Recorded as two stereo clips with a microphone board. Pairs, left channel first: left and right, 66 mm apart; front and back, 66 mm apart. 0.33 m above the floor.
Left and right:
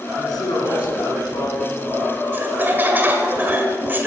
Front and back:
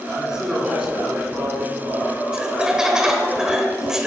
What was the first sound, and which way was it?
A man speaking, 100° left.